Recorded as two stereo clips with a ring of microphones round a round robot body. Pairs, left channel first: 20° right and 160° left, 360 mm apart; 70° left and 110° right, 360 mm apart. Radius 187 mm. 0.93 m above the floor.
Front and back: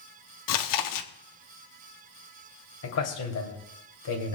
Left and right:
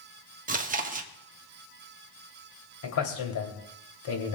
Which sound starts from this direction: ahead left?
A man speaking, at 2.8 s.